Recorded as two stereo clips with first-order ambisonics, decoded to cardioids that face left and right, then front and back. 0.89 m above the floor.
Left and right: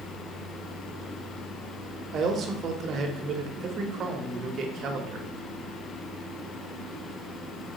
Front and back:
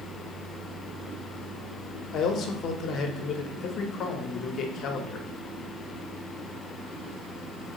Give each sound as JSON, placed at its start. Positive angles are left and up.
{"t": 2.1, "sound": "a man speaking", "azimuth_deg": -40, "distance_m": 0.6}